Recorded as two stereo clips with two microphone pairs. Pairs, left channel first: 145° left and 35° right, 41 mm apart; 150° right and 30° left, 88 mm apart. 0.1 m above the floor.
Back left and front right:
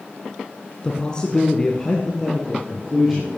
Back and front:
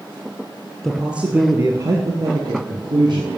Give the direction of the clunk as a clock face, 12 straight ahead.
I don't hear a clunk.